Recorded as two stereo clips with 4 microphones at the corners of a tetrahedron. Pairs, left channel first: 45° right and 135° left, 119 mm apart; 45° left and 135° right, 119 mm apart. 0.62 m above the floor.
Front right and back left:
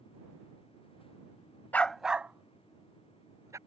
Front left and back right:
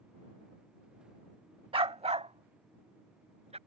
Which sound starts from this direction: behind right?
A dog barking, at 1.7 s.